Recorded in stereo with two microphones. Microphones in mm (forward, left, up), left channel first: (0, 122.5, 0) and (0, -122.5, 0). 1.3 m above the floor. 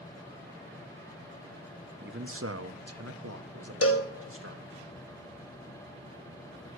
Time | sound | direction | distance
2.0 | a man speaking | 45° right (ahead or behind) | 0.9 m
3.8 | a cowbell | 60° left (ahead or behind) | 1.0 m